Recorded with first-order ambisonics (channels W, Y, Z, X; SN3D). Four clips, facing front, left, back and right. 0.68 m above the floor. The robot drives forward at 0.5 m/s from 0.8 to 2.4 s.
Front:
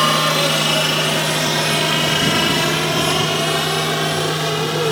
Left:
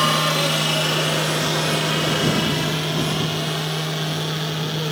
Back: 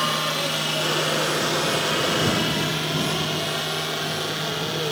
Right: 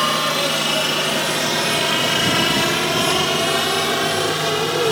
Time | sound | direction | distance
0.0 | a helicopter | straight ahead | ?